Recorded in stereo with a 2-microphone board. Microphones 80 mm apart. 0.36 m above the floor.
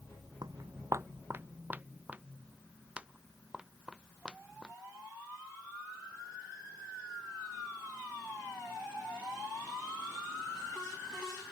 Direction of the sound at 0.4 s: 60° right (ahead or behind).